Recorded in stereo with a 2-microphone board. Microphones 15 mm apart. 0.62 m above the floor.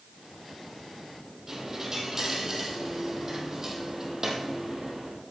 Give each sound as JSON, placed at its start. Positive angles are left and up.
{"t": 1.5, "sound": "a dropped coin", "side_deg": -30, "distance_m": 3.0}